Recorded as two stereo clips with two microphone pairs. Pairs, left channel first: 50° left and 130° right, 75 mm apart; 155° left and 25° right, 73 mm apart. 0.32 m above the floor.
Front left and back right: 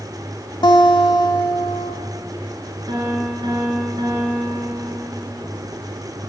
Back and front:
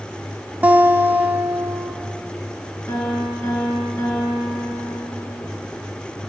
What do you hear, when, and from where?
0.6 s a guitar: 40° left, 0.6 m
2.9 s a piano: 155° right, 3 m